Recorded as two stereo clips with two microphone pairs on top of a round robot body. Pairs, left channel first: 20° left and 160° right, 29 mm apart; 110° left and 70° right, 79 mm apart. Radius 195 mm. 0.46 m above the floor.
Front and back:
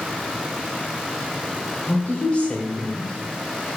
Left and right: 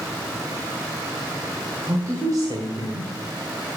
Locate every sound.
1.9 s a woman speaking: 15° right, 2.5 m; by 3.1 s 60° right, 1.8 m